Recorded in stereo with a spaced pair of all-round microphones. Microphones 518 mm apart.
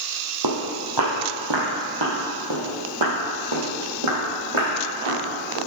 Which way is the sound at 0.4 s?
40° right (ahead or behind).